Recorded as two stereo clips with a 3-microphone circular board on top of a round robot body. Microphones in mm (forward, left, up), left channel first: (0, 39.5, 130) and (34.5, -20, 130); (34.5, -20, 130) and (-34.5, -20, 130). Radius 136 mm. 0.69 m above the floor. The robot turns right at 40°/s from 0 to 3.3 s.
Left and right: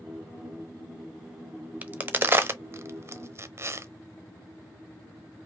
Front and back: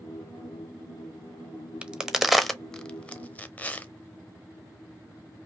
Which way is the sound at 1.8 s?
115° right.